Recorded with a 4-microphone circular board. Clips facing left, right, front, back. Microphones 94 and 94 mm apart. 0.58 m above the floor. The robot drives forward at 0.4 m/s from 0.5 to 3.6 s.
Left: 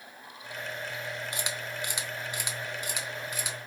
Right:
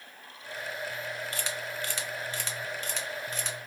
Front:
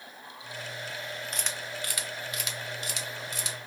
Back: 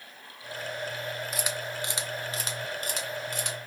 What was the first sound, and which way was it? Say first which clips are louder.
A camera shutter: even, back 4 dB; 100° left.